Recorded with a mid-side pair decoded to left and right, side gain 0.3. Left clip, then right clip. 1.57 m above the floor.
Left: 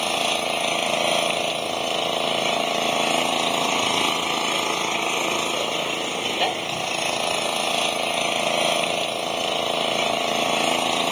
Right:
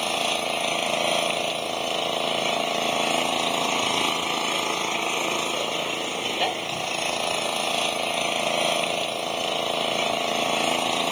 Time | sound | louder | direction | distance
0.0 | an engine running | left 2 dB | 25° left | ?